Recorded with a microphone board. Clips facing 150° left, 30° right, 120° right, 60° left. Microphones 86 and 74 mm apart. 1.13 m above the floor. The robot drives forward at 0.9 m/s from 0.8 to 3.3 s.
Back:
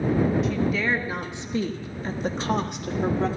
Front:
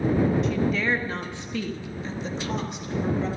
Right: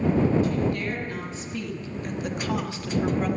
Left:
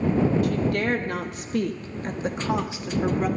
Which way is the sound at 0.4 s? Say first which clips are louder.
Even, left 2 dB; 60° left.